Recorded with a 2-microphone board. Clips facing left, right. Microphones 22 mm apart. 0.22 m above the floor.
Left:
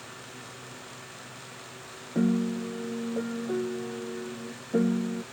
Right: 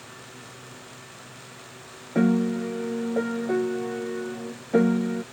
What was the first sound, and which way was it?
A piano, 65° right (ahead or behind).